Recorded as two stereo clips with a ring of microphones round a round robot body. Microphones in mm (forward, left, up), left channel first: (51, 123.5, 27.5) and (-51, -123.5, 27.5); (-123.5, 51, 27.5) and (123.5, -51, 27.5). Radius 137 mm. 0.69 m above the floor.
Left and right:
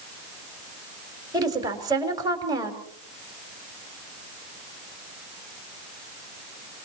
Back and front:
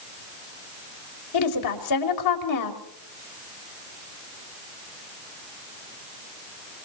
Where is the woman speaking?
170° left, 3 m.